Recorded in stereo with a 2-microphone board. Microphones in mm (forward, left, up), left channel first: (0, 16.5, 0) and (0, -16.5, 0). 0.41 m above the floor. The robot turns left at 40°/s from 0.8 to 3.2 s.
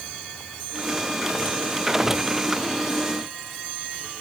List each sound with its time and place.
Only background noise.